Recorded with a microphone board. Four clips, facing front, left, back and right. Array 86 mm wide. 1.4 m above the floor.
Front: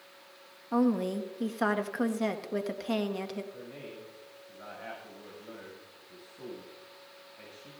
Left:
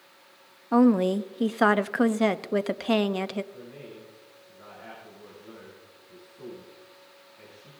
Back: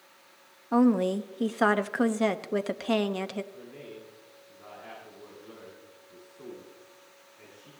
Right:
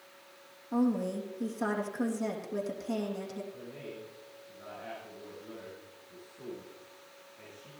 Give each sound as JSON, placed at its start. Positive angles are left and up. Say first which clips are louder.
{"t": 0.7, "sound": "a woman speaking", "louder": "left 9 dB, back 5 dB", "azimuth_deg": 110, "distance_m": 0.6}
{"t": 3.5, "sound": "a man speaking", "louder": "left 1 dB, even", "azimuth_deg": 5, "distance_m": 7.0}